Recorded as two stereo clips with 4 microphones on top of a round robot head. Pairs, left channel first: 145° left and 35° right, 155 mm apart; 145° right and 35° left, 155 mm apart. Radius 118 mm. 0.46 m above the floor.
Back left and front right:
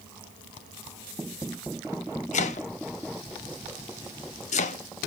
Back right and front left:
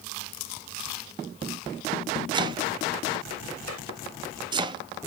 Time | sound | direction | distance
2.3 | chopping | 100° left | 0.7 m